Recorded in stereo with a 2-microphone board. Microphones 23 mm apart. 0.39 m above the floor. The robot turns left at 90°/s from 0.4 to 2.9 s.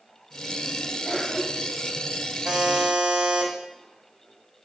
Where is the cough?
15° left (ahead or behind), 1.3 m; by 1.9 s 15° right (ahead or behind), 1.3 m.